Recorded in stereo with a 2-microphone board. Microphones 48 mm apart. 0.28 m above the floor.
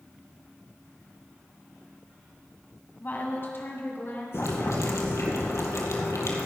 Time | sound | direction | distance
3.0 | a woman speaking | 40° left (ahead or behind) | 1.8 m
4.3 | boiling | 85° left | 1.9 m